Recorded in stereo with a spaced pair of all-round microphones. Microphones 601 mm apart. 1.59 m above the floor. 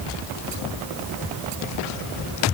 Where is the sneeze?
No sneeze in this recording.